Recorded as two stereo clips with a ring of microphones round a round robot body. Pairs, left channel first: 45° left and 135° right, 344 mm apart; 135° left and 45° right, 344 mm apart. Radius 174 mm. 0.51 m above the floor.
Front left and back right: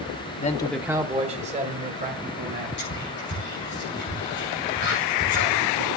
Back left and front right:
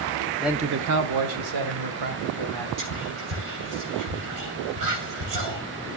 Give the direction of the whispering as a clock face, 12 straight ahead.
12 o'clock.